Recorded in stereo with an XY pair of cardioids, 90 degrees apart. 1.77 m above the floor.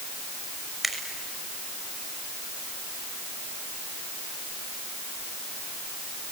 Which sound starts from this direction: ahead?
A finger snap, at 0.8 s.